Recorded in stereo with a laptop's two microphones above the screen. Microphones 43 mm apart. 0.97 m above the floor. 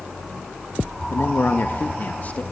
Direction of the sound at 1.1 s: 55° left (ahead or behind).